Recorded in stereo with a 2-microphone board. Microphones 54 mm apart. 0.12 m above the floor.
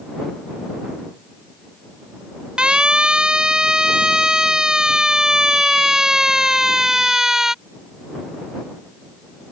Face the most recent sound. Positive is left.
turn(degrees=-10)  # may be behind; listen again after turning